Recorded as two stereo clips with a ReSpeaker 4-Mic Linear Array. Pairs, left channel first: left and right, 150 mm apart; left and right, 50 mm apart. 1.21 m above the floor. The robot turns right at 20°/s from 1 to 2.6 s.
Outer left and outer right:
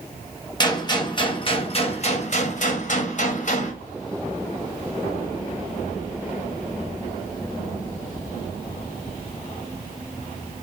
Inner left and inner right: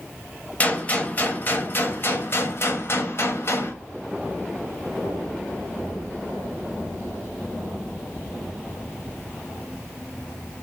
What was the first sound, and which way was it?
A gunshot, 30° left.